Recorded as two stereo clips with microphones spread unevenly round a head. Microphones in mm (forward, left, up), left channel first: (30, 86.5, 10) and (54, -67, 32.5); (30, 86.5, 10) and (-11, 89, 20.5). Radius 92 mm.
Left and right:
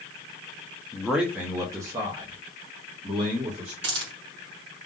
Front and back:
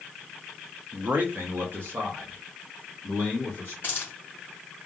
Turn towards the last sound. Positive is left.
turn(degrees=-110)